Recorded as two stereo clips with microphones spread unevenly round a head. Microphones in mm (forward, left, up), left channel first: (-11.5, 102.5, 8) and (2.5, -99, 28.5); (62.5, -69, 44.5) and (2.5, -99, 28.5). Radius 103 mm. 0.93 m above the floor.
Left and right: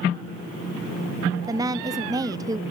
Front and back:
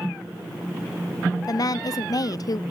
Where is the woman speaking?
10° right, 0.6 m.